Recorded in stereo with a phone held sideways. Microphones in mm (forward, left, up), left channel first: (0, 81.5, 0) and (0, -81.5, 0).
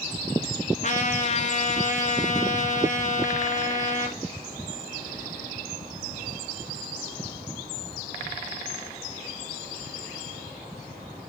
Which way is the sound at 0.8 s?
45° left (ahead or behind).